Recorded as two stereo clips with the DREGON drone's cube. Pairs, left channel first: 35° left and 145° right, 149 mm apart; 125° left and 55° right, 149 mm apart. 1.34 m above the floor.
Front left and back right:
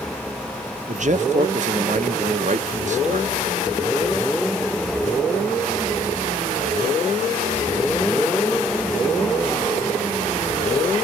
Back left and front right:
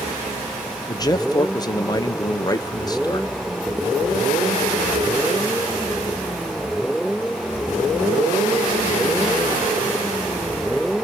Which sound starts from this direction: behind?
A man speaking, at 0.9 s.